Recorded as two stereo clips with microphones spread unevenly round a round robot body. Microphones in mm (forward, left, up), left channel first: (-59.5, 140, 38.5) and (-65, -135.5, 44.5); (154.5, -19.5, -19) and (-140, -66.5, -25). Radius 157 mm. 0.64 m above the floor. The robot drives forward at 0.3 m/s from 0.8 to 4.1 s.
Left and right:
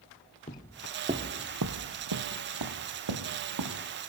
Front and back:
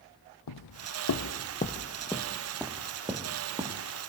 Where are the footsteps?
15° left, 1.6 m; by 3.9 s 100° right, 4.5 m.